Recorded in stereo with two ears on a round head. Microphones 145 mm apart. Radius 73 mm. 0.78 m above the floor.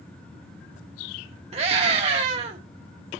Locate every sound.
1.5 s a scream: 40° right (ahead or behind), 1.0 m